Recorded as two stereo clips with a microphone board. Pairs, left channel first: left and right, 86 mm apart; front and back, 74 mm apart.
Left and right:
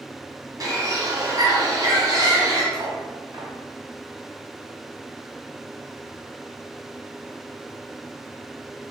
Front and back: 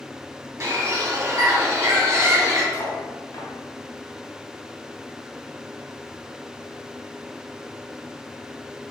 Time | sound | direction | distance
0.6 | a bird | 130° right | 2.0 m
2.7 | cutlery clinking | 50° right | 2.5 m